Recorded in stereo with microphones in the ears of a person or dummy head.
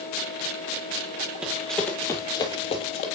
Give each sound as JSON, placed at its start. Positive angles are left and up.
{"t": 1.4, "sound": "running footsteps", "side_deg": -5, "distance_m": 1.2}